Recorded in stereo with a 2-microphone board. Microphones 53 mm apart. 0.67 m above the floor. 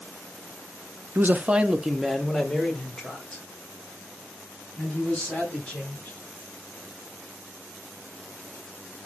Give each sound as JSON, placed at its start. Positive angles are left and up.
{"t": 1.1, "sound": "a man speaking", "side_deg": -45, "distance_m": 0.7}